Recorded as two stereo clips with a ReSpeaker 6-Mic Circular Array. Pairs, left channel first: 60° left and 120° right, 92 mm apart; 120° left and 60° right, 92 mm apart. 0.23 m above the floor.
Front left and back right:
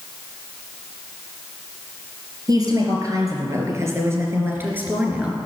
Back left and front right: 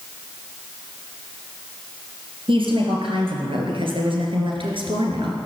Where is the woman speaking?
75° right, 3.5 m; by 5.4 s 45° right, 3 m.